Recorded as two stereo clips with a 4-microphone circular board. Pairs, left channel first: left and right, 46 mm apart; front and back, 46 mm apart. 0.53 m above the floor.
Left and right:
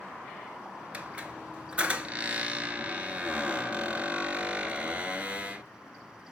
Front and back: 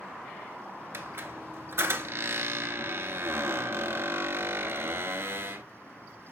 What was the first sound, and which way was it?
A squeak, 155° right.